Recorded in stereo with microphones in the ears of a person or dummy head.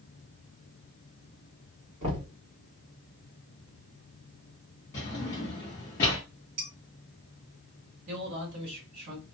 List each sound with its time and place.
2.0 s knocking: 35° right (ahead or behind), 1.5 m
4.9 s a drawer: 15° left (ahead or behind), 0.7 m
6.6 s dishes clattering: 50° right (ahead or behind), 1.5 m
8.1 s a man speaking: 75° right (ahead or behind), 1.6 m